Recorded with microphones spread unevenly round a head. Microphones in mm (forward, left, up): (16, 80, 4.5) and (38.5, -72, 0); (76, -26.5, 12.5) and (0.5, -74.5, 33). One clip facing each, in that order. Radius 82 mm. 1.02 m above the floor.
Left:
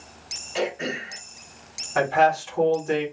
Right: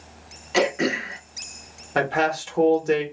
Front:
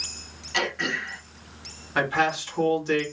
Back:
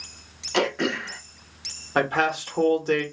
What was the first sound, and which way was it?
Throat clearing, 110° right.